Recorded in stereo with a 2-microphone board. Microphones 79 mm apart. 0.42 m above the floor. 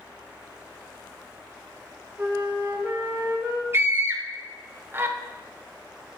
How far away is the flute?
About 1.1 m.